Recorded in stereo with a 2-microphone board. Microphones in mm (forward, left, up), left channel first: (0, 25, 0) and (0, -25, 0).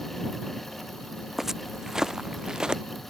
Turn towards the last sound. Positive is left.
turn(degrees=-15)  # may be behind; listen again after turning